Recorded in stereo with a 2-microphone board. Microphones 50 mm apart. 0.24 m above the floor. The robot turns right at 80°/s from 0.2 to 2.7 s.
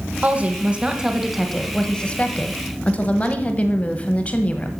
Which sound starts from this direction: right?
A woman speaking, at 0.2 s.